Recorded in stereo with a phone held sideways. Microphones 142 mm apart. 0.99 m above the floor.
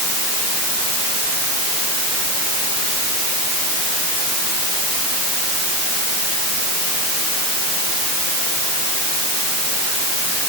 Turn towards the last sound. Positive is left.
No sound to turn to.